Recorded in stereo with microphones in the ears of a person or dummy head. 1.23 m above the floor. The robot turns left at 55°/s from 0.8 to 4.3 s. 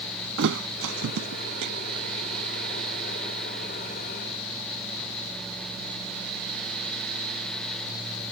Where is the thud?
65° right (ahead or behind); by 1.7 s 60° right (ahead or behind).